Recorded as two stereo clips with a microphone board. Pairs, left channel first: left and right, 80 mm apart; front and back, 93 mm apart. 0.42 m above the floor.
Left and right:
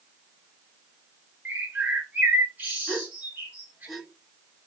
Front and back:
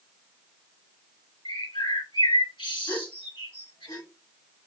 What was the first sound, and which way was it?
A bird, 25° right.